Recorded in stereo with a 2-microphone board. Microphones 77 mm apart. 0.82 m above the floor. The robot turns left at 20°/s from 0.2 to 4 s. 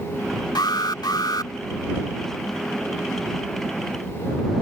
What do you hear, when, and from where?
0.6 s an alarm: 70° left (ahead or behind); by 1.5 s 60° left (ahead or behind)